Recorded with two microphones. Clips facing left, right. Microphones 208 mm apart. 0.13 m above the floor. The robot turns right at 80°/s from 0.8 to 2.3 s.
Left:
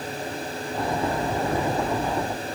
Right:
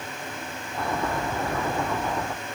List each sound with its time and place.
Only background noise.